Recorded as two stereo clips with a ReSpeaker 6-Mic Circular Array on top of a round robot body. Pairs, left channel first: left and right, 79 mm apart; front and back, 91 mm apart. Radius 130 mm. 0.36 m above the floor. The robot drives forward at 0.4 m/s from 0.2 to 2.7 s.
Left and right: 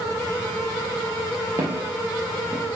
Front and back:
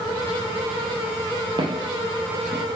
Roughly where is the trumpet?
I don't hear a trumpet.